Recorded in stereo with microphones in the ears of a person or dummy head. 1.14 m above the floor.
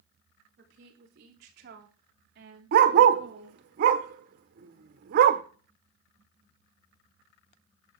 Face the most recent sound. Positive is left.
turn(degrees=-60)  # may be behind; listen again after turning